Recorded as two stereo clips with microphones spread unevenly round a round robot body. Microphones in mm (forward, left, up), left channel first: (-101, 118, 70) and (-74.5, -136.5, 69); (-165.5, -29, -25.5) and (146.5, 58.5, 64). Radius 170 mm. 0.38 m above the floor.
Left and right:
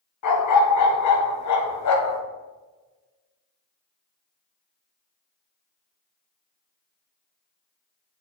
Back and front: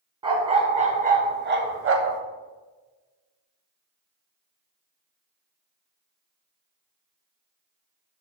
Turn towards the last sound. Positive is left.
turn(degrees=65)